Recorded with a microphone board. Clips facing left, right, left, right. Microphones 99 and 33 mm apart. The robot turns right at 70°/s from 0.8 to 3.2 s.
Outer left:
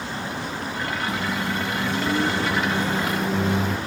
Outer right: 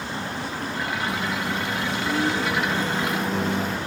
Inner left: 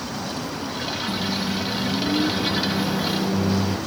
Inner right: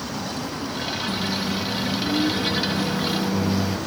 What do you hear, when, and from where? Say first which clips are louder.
1.1 s a microwave: outer left 1 dB, inner left 1 dB; 35° left, 1.3 m; by 3.8 s 175° right, 1.3 m